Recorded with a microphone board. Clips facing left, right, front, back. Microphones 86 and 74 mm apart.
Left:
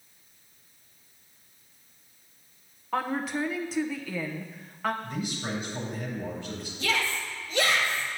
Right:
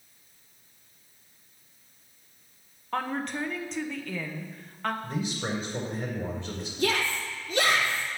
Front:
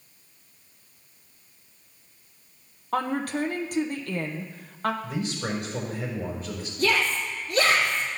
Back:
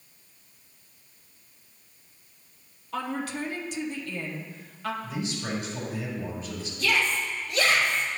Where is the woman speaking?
5° left, 0.9 m.